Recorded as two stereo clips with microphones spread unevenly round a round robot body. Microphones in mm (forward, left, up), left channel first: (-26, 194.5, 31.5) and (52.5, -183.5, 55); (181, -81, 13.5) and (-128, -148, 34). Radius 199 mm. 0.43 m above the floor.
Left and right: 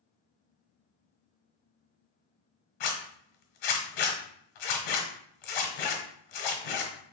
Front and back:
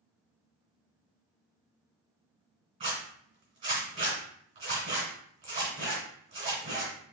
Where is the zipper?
115° left, 1.7 m.